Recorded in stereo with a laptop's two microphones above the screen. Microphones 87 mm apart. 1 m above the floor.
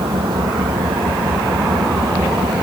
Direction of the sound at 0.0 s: 75° right (ahead or behind).